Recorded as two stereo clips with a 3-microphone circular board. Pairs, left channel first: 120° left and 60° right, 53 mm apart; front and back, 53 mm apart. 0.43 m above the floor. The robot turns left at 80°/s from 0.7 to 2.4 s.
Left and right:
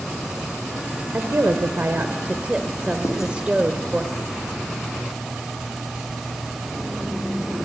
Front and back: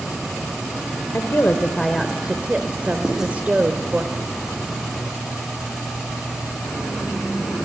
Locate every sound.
1.1 s a woman speaking: 20° right, 1.3 m; by 4.0 s 120° right, 1.3 m
3.0 s writing: 100° left, 4 m